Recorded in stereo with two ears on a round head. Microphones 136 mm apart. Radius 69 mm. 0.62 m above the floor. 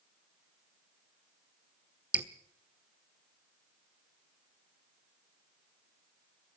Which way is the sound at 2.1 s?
10° right (ahead or behind).